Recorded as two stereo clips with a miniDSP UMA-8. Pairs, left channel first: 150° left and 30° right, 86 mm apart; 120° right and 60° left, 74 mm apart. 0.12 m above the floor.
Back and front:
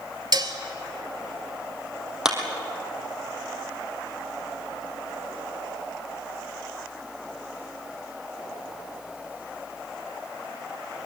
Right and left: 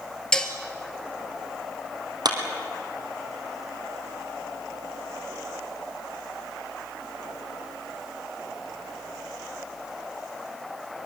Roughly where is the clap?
Ahead left.